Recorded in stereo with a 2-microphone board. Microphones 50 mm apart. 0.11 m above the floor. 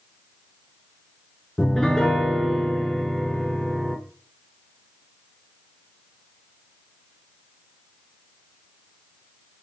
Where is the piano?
10° left (ahead or behind), 0.7 m.